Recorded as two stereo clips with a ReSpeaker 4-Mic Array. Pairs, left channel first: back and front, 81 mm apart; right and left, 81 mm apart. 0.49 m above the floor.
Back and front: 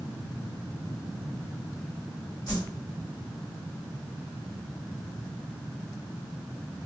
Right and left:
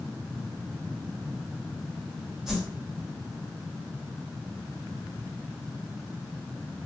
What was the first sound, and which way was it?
A whoosh, 175° left.